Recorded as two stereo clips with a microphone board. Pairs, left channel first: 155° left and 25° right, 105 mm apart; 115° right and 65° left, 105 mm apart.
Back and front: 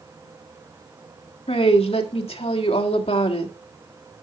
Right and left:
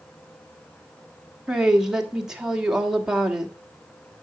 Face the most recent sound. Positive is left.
turn(degrees=150)